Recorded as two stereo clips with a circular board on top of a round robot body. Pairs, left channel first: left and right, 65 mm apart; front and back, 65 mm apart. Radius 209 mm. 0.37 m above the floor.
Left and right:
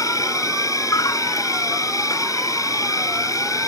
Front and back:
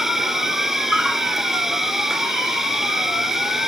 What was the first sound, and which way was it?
An insect, 100° left.